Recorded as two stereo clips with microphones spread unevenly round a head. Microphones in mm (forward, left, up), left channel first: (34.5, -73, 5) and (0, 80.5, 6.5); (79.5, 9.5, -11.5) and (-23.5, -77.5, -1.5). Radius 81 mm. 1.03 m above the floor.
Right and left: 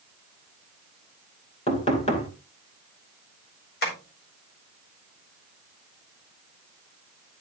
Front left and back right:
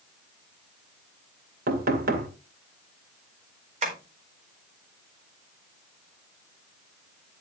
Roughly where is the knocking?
Behind right.